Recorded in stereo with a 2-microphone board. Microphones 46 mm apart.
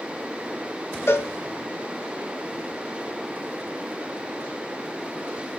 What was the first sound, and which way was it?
A cowbell, 65° left (ahead or behind).